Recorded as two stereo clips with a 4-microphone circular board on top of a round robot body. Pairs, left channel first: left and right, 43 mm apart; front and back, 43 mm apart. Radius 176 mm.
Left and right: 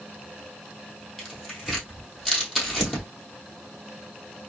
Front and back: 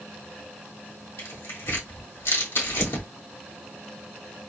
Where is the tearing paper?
Straight ahead, 2.5 m.